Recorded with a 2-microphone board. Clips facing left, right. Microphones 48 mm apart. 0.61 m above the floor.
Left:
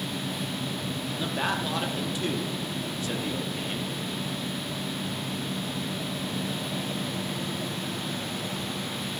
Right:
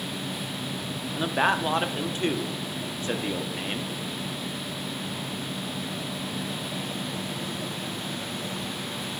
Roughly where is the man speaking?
Right.